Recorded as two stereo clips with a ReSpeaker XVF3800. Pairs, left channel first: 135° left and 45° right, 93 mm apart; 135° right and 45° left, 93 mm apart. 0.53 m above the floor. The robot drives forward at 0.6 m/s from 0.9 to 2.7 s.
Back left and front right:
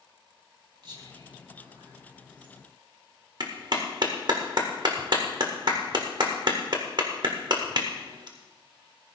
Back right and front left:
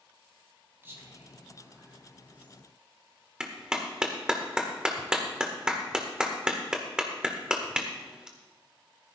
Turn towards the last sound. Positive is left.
turn(degrees=-35)